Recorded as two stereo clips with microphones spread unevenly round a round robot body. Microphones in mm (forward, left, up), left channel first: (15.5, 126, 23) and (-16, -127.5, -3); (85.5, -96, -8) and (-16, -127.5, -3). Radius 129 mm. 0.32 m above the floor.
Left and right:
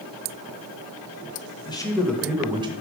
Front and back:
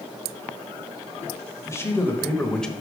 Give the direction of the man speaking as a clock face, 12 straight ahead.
11 o'clock.